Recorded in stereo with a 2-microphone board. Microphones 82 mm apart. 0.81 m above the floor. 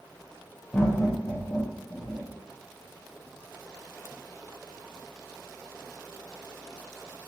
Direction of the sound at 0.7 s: 25° left (ahead or behind).